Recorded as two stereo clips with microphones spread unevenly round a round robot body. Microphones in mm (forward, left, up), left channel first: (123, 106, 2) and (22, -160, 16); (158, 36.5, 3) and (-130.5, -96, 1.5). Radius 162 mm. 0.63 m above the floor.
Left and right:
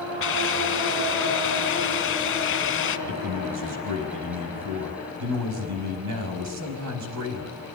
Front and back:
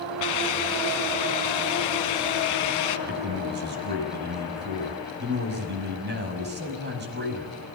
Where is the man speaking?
100° right, 5 m.